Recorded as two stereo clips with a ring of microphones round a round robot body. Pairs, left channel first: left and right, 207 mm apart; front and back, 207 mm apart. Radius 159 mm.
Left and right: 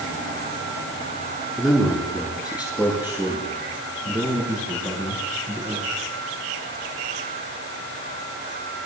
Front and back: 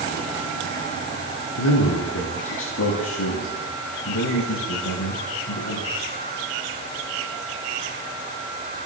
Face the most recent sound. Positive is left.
turn(degrees=-20)